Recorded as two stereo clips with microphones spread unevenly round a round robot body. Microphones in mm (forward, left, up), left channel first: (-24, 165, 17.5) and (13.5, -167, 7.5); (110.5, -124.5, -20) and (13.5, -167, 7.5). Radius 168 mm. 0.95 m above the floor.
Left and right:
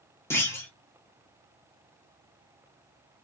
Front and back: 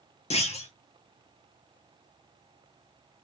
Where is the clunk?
15° left, 1.2 m.